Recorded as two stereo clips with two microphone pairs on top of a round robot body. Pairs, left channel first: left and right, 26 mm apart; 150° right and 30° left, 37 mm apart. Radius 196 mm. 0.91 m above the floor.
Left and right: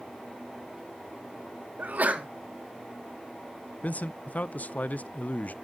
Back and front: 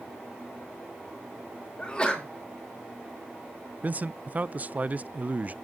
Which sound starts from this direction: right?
A sneeze, at 1.8 s.